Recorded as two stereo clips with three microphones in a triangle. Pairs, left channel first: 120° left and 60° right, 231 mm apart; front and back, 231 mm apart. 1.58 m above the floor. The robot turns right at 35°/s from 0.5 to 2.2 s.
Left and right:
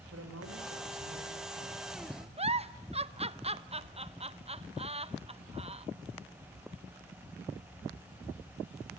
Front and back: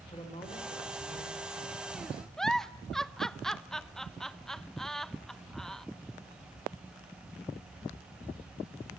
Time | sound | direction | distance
0.1 | a man speaking | 70° right | 6.5 m
2.4 | a giggle | 85° right | 0.8 m